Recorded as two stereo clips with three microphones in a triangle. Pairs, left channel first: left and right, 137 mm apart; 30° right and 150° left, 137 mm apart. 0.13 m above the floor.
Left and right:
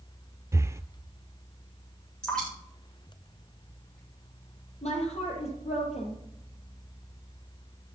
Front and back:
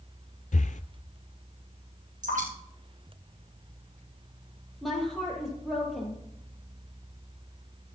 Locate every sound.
0.5 s breathing: 20° right, 0.6 m
2.2 s dripping: 175° left, 10 m
4.8 s a woman speaking: 60° left, 4.5 m